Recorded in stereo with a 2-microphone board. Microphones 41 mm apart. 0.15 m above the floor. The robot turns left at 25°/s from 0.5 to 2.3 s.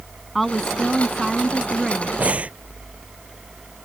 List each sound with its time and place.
0.3 s a woman speaking: centre (ahead or behind); by 2.1 s 15° right (ahead or behind)
2.2 s breathing: 35° right (ahead or behind); by 2.5 s 30° right (ahead or behind)